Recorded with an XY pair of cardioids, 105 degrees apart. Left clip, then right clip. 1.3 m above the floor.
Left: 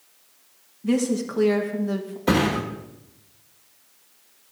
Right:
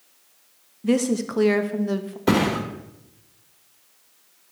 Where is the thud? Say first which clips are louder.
Even; 25° right, 2.5 m.